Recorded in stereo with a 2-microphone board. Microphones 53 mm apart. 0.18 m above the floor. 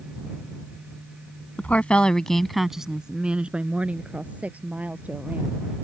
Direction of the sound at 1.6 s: 30° left (ahead or behind).